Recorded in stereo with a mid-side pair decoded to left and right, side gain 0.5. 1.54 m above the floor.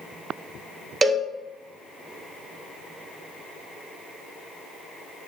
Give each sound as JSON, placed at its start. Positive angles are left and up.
{"t": 1.0, "sound": "a cowbell", "azimuth_deg": -20, "distance_m": 0.9}